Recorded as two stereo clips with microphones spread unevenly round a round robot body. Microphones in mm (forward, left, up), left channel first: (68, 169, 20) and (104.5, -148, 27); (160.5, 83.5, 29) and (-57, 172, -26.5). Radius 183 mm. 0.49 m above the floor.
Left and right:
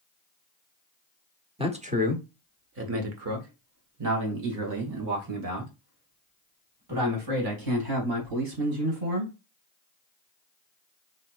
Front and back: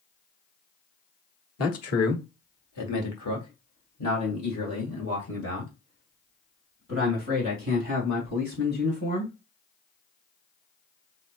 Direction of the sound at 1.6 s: 15° right.